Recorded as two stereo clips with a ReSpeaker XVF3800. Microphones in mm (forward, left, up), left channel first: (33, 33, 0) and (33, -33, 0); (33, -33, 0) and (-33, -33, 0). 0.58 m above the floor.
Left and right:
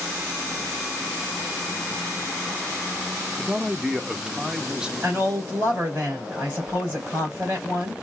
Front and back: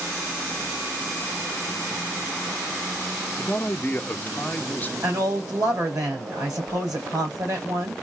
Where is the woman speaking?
150° right, 3.5 m.